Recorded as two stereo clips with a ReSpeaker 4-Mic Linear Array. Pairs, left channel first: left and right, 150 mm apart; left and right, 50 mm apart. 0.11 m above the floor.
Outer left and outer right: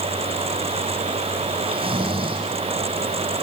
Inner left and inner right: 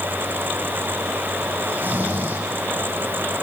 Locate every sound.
1.7 s snoring: 35° right (ahead or behind), 4.5 m